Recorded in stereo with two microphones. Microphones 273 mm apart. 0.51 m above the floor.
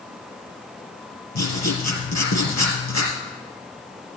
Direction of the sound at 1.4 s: 90° left.